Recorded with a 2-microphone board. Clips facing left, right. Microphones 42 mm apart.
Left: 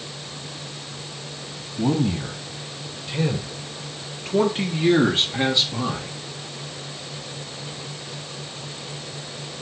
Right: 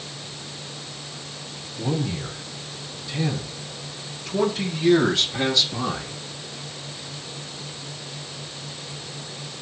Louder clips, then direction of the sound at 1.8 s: Left 5 dB; 70° left (ahead or behind).